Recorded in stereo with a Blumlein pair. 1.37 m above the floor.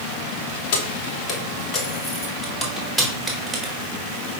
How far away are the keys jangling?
About 2 m.